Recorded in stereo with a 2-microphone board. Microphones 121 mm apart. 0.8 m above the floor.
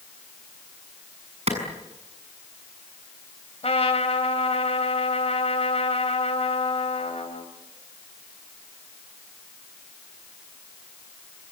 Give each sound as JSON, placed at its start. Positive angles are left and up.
{"t": 1.5, "sound": "a clap", "side_deg": -60, "distance_m": 7.0}
{"t": 3.6, "sound": "a trumpet", "side_deg": 60, "distance_m": 3.0}